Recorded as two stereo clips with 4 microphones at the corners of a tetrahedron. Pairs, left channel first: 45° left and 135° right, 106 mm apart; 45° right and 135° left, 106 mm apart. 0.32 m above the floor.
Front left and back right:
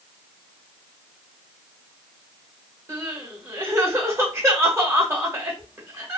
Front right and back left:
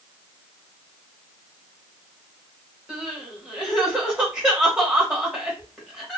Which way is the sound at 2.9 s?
150° right.